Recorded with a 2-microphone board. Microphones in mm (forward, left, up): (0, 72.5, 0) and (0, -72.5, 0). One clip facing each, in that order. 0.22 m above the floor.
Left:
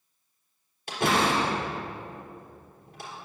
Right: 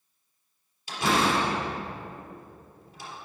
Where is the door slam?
60° left (ahead or behind), 3.5 m.